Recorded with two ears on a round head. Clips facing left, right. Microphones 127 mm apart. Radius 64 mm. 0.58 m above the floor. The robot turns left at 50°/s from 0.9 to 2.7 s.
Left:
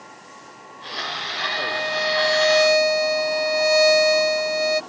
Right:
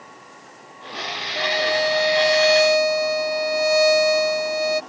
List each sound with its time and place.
1.4 s a violin: 115° right; by 4.8 s straight behind